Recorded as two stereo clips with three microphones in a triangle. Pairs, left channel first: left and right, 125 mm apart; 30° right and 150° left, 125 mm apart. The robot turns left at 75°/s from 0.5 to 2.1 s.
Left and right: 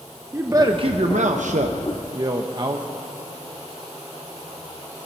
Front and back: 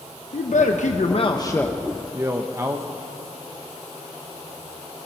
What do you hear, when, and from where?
0.3 s a man speaking: 20° right, 0.7 m; by 2.9 s 140° right, 0.7 m